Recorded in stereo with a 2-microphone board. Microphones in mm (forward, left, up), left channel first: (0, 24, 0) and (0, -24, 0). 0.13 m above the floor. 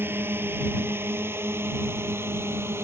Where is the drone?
50° right (ahead or behind); by 2.9 s 60° right (ahead or behind).